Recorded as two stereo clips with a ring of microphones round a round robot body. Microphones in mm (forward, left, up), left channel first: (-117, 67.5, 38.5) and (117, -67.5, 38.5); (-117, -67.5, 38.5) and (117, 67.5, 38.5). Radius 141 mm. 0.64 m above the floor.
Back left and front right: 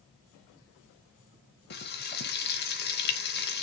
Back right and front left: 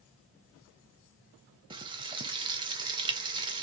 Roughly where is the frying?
Left.